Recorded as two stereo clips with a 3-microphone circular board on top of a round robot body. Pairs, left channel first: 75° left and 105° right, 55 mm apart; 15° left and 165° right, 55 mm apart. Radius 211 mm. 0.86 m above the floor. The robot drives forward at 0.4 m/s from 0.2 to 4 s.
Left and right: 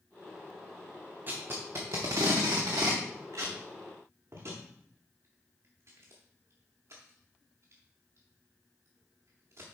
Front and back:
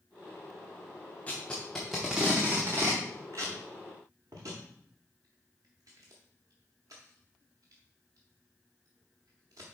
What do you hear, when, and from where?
1.3 s tape being pulled: 50° right, 0.7 m; by 9.7 s 145° right, 0.9 m